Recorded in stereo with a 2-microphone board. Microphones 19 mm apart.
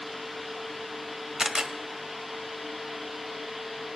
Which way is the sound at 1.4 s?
35° right (ahead or behind).